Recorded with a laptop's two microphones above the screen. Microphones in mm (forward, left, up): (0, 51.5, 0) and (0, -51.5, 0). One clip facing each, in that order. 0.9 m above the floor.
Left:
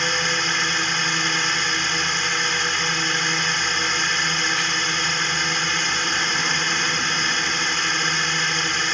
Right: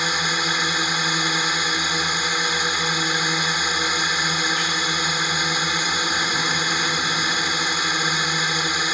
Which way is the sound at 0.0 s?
10° right (ahead or behind).